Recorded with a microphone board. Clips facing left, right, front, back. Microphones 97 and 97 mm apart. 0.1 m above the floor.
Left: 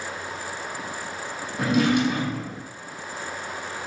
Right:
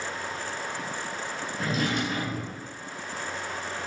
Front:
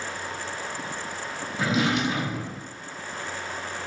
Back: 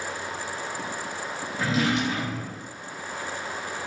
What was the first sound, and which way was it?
A drawer, 75° left.